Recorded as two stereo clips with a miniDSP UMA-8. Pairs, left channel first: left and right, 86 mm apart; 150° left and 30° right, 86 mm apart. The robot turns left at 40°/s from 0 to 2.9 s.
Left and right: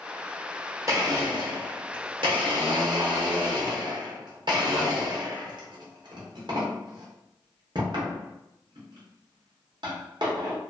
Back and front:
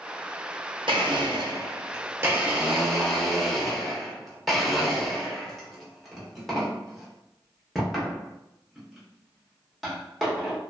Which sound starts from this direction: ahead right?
A blender, at 0.9 s.